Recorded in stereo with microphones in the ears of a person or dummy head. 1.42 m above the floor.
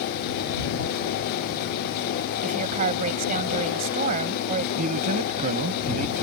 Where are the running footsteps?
No running footsteps in this recording.